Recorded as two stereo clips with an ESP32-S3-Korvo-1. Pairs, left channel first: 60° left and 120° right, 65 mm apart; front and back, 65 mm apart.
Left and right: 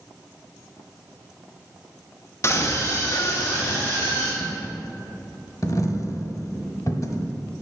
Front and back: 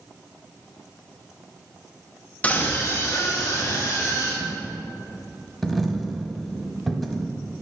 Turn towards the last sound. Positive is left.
turn(degrees=85)